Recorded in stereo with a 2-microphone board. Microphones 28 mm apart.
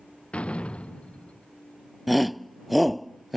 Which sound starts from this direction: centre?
A shout, at 2.1 s.